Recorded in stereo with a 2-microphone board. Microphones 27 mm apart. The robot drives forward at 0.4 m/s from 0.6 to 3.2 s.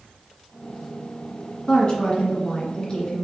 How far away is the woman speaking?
About 1.9 m.